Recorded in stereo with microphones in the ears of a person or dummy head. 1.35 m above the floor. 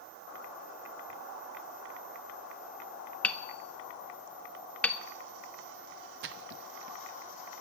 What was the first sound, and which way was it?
Hammering, 10° left (ahead or behind).